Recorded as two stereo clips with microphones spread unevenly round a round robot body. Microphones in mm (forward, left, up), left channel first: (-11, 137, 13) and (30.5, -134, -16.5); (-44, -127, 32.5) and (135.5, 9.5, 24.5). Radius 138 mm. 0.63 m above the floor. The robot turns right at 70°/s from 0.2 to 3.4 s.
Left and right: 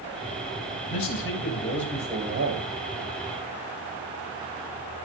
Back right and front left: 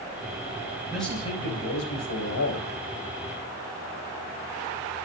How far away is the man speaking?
About 4.5 m.